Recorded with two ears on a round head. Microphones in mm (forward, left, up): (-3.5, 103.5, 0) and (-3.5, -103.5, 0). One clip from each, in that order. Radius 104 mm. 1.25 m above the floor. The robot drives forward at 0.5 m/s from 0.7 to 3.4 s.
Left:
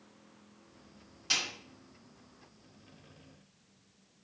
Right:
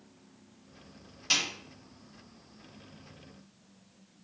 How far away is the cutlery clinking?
No cutlery clinking in this recording.